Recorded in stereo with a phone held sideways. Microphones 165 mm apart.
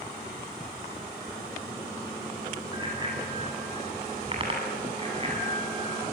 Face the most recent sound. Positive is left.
turn(degrees=-35)  # may be behind; listen again after turning